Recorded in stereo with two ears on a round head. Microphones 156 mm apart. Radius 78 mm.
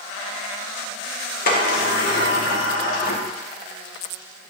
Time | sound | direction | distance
1.5 | a sliding door | 50° left (ahead or behind) | 1.0 m